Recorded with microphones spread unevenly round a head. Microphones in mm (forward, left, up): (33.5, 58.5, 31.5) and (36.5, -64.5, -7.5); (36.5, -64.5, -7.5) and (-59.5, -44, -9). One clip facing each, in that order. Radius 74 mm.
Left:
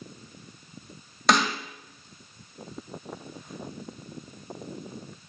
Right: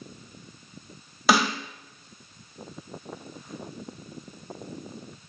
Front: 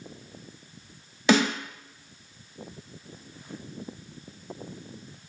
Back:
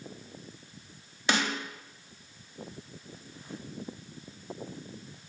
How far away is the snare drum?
About 2 m.